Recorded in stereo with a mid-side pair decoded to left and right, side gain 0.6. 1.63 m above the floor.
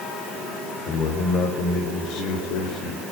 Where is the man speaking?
60° left, 7 m; by 3.0 s 75° left, 6.5 m.